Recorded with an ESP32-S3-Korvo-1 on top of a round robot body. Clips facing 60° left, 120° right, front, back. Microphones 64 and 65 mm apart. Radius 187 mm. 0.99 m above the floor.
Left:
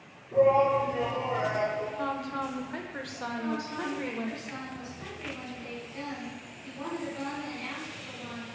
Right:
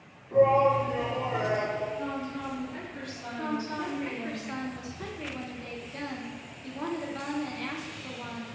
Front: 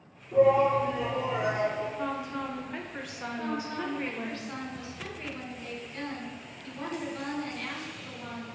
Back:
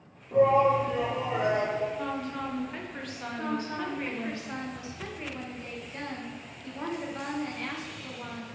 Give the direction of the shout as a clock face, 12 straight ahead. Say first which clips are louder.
Right 1 dB, even; 6 o'clock.